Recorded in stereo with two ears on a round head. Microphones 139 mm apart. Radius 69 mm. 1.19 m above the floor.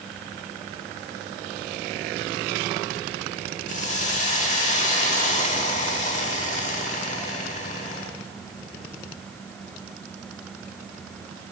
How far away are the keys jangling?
I don't hear keys jangling.